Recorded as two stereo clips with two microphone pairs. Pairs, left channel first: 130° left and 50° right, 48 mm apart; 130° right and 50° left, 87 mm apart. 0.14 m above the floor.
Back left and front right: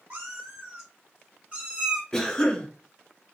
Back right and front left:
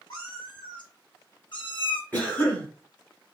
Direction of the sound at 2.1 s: 170° right.